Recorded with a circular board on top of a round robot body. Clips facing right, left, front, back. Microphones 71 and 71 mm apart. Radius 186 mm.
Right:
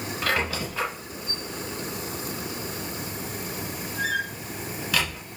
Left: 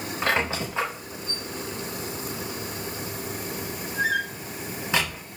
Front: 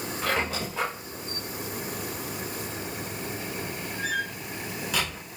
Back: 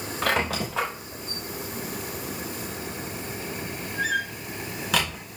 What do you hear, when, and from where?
0.2 s a squeak: 155° left, 0.7 m